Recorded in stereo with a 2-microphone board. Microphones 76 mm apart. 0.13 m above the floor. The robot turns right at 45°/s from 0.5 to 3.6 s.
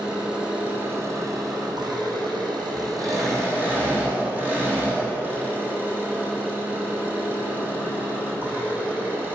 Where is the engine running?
165° right, 3.5 m; by 9.4 s 25° right, 3.5 m.